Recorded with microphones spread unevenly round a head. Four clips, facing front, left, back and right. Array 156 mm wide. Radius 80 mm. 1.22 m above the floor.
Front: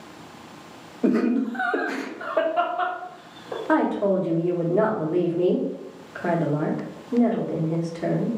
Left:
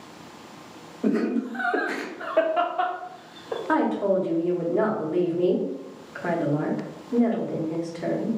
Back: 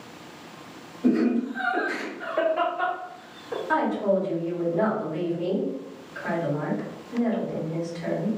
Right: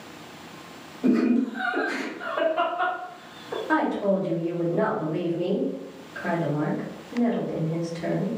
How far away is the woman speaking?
About 1.3 m.